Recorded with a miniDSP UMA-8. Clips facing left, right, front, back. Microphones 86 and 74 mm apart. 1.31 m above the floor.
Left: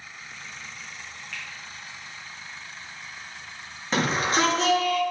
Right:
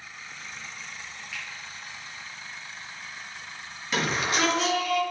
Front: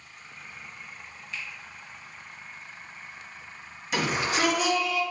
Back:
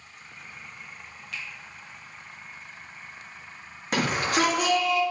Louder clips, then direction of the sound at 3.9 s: Left 3 dB, back 2 dB; 145° left.